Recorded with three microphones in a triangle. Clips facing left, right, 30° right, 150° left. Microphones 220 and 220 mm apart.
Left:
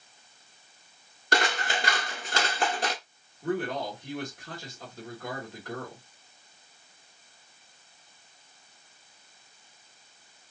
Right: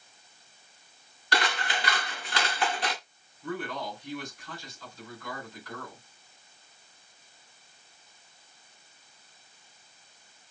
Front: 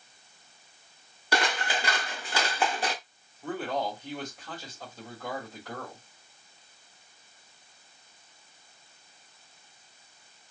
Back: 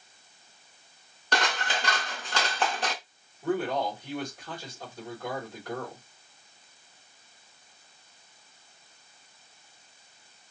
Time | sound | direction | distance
1.3 | scissors | 50° left | 1.5 m
3.4 | a man speaking | 70° left | 3.5 m